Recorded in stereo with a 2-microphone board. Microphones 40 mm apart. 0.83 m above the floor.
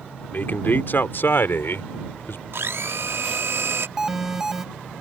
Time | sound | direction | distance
0.3 | a man speaking | 50° left (ahead or behind) | ?
2.5 | a blender | 75° right (ahead or behind) | ?
4.0 | an alarm | 10° right (ahead or behind) | ?